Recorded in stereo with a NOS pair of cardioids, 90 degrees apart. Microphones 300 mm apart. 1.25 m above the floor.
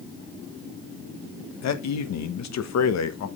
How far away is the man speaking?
About 1.1 m.